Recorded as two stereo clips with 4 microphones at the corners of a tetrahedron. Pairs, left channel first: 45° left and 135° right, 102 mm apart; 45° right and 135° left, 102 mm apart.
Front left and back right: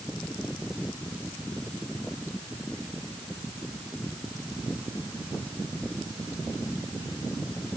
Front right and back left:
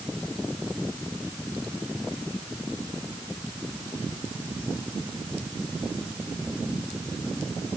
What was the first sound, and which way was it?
Only background noise.